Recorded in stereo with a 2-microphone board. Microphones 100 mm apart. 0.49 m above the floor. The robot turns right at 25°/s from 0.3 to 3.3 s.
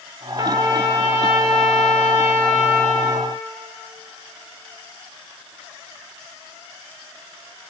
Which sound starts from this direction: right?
A trumpet, at 0.4 s.